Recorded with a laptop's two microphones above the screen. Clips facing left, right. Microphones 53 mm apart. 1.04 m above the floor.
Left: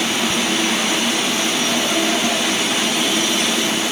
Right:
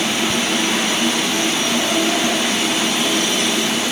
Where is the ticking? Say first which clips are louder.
Even; 25° right (ahead or behind).